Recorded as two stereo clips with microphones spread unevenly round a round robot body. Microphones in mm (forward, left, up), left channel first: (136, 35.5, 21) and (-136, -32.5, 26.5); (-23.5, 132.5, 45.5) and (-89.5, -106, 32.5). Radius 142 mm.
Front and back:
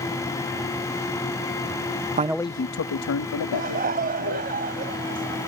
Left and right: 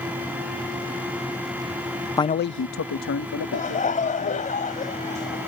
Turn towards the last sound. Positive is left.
turn(degrees=135)